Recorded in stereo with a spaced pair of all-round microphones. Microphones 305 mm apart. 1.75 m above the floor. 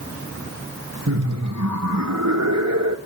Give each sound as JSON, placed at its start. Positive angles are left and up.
{"t": 1.1, "sound": "laughter", "side_deg": -65, "distance_m": 1.8}